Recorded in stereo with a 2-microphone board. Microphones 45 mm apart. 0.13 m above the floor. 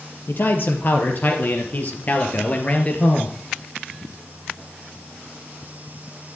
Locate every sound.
0.3 s a man speaking: 50° left (ahead or behind), 4 m; by 3.3 s 30° left (ahead or behind), 2.5 m